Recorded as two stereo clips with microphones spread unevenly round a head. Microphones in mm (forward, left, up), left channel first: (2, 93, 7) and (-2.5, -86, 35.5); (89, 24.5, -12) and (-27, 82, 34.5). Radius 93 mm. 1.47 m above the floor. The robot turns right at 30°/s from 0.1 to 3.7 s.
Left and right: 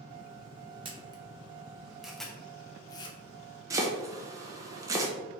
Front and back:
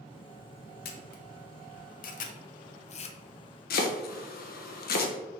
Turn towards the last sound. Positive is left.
turn(degrees=-20)